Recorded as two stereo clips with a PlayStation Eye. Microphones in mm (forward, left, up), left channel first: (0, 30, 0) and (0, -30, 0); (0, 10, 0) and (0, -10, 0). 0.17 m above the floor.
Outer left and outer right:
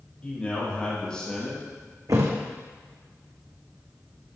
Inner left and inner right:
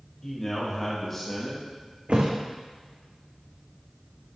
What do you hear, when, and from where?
0.2 s a man speaking: 20° left (ahead or behind), 4 m; by 1.6 s 5° left (ahead or behind), 3 m
2.1 s a thud: 65° right (ahead or behind), 1.9 m